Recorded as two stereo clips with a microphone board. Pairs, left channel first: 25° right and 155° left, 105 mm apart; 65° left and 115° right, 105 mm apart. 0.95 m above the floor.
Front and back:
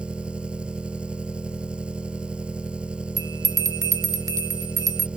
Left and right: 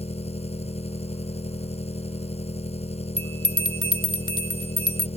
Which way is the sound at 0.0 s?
80° left.